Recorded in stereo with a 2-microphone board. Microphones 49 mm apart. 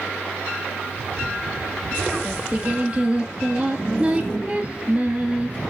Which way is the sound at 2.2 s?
25° right (ahead or behind).